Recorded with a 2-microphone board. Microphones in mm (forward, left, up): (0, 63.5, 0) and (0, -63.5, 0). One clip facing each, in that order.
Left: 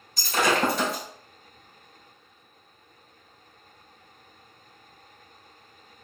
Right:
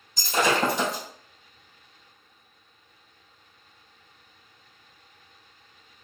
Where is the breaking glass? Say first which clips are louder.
Even; 20° right (ahead or behind), 1.7 m.